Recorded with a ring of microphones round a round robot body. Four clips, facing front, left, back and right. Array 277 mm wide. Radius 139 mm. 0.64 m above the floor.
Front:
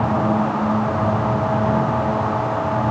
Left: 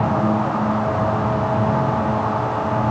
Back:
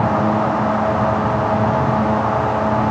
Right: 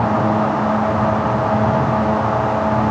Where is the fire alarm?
No fire alarm in this recording.